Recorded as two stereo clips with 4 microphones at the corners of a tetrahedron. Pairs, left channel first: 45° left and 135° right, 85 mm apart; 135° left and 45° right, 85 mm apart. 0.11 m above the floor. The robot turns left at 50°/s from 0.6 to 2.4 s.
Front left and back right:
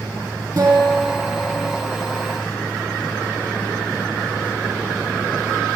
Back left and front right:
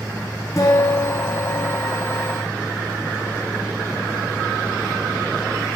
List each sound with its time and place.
0.6 s a guitar: 175° right, 4 m; by 1.8 s 125° left, 4 m